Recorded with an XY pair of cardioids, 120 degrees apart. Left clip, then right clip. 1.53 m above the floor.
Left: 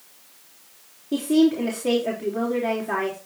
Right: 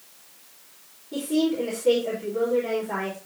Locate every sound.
1.1 s a woman speaking: 65° left, 3.5 m